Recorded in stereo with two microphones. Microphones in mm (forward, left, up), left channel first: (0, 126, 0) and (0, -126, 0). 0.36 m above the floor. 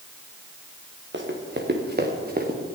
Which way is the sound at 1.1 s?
50° right (ahead or behind).